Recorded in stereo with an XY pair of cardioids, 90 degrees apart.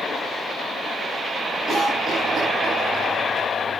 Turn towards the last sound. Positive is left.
turn(degrees=-60)